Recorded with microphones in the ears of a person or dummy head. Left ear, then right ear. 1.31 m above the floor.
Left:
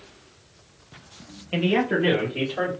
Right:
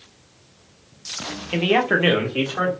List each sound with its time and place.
1.5 s a man speaking: 15° right (ahead or behind), 0.5 m; by 2.7 s 85° right, 1.4 m